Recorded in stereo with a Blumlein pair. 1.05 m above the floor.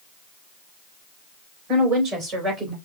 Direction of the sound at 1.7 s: 35° right.